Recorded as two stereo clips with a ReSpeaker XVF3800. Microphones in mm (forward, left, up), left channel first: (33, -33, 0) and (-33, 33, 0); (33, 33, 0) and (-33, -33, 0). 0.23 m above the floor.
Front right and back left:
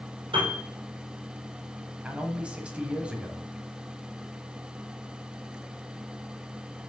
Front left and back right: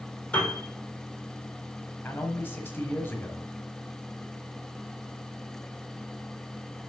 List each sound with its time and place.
0.3 s a piano: 125° left, 3 m
2.0 s a man speaking: 75° left, 1.2 m